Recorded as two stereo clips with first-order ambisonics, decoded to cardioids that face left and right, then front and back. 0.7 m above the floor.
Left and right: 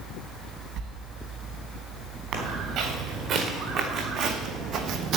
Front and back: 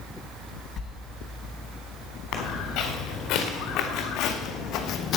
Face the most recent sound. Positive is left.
turn(degrees=-50)